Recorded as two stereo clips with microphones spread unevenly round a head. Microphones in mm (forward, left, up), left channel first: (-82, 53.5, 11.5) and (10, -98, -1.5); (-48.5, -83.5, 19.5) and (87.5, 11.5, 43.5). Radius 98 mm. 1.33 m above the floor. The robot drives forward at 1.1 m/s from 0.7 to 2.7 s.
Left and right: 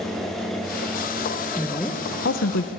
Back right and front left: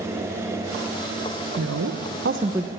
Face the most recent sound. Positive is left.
turn(degrees=125)